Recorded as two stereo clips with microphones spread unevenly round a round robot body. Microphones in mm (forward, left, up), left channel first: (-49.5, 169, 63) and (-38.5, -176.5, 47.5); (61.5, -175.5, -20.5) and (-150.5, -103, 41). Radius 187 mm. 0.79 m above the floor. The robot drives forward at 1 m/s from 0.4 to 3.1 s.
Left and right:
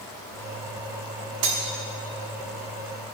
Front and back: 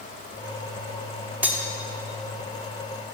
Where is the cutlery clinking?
115° right, 1.1 m; by 1.6 s 120° right, 1.2 m.